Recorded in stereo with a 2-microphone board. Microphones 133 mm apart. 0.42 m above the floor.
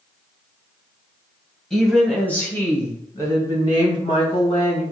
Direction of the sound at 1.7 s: Centre (ahead or behind).